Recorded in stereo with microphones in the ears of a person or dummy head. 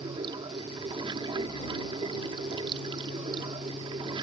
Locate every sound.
0.0 s running water: 30° right (ahead or behind)